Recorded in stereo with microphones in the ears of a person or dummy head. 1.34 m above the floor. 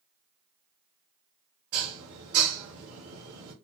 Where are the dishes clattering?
55° right (ahead or behind), 1.8 m.